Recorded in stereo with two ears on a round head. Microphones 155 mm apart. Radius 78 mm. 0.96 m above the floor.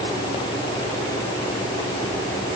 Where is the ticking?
I don't hear ticking.